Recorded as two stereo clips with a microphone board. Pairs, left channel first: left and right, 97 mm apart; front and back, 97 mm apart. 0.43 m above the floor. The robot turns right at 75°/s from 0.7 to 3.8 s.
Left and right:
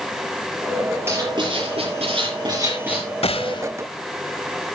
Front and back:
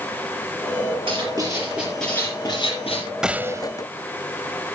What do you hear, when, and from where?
1.1 s writing: 155° right, 6.5 m; by 3.0 s 5° right, 6.5 m
3.2 s a gunshot: 95° left, 0.7 m; by 3.7 s 130° left, 0.7 m